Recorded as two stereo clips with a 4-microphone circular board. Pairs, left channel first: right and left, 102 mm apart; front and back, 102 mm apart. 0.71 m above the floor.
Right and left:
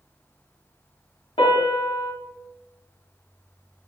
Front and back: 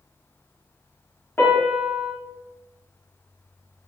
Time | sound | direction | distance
1.4 | a piano | 70° right | 0.8 m